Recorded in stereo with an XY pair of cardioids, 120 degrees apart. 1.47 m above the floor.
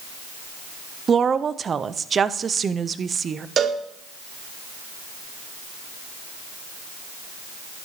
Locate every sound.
1.1 s a woman speaking: 35° right, 0.5 m
3.6 s a cowbell: 45° right, 0.8 m